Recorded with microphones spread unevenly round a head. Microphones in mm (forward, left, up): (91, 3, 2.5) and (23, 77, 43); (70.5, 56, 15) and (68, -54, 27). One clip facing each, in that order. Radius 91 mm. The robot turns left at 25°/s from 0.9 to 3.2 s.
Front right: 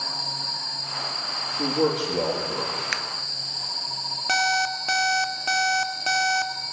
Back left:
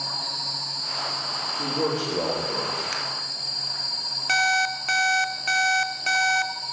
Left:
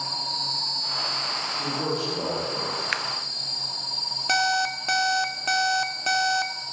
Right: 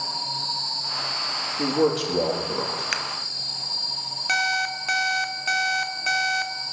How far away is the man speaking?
About 2.5 m.